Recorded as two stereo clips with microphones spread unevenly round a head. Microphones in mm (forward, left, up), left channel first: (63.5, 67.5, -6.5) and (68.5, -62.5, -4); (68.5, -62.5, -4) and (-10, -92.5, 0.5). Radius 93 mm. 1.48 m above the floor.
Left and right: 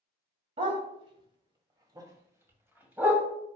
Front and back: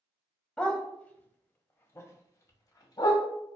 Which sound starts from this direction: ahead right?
A dog barking, at 0.6 s.